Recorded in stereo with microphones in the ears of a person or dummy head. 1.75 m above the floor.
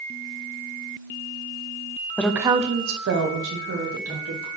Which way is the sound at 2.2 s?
10° left (ahead or behind).